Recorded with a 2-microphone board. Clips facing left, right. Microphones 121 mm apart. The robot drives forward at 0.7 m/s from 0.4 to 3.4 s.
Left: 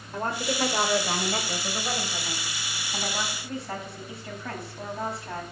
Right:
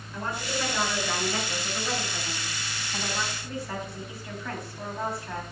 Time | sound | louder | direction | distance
0.1 | a woman speaking | left 3 dB | 45° left (ahead or behind) | 2 m